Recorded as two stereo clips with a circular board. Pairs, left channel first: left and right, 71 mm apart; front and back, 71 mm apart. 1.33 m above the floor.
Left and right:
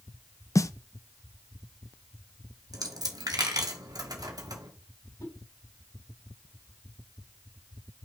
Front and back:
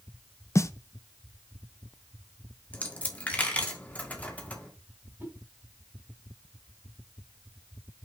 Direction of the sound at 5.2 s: 120° left.